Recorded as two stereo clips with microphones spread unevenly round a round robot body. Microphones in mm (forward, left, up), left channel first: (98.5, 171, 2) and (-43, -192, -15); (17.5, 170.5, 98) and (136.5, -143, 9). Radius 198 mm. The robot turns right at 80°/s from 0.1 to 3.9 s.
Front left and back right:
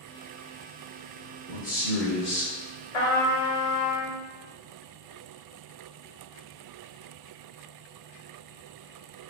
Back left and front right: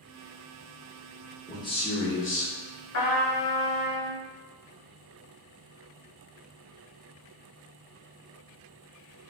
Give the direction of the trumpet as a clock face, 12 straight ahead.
10 o'clock.